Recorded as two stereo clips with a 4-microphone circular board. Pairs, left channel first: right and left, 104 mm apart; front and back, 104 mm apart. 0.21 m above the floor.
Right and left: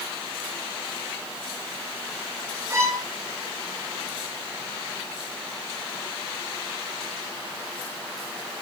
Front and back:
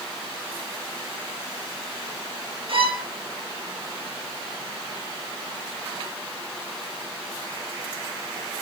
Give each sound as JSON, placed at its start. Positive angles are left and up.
{"t": 2.7, "sound": "a violin", "azimuth_deg": 150, "distance_m": 3.0}